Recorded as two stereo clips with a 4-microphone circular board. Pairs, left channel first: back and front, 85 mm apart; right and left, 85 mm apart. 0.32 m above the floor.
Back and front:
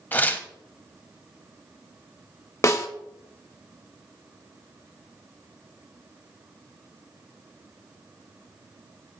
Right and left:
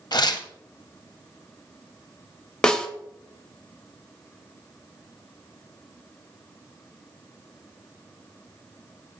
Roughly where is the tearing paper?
Behind right.